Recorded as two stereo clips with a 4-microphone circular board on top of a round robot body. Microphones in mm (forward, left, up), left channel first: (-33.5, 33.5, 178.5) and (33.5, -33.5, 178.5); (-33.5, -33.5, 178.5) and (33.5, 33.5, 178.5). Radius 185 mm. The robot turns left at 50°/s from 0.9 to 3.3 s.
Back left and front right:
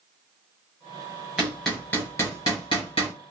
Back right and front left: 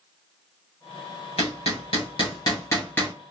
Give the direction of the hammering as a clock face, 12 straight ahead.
4 o'clock.